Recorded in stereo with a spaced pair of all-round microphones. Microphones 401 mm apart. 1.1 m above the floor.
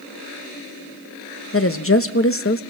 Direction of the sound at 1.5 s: 30° left (ahead or behind).